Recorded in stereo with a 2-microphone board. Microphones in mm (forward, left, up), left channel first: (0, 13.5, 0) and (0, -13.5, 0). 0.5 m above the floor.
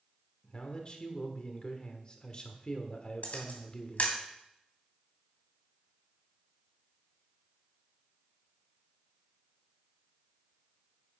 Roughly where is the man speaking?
Left.